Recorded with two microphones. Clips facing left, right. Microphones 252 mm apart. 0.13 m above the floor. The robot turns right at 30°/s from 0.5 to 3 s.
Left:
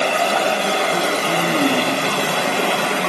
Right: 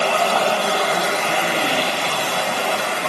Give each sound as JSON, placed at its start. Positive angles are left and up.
{"t": 0.0, "sound": "running water", "azimuth_deg": 15, "distance_m": 1.1}